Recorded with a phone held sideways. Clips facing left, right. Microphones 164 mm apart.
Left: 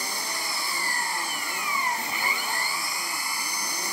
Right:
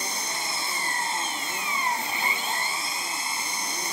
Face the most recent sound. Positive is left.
turn(degrees=-25)  # may be behind; listen again after turning